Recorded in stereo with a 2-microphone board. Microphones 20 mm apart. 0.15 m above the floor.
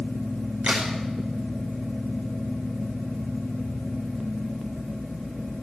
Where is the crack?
65° right (ahead or behind), 6 m.